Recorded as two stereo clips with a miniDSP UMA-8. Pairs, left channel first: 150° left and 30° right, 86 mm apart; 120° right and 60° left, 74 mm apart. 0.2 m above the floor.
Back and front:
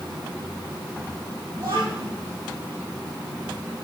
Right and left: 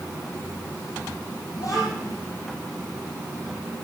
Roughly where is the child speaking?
Right.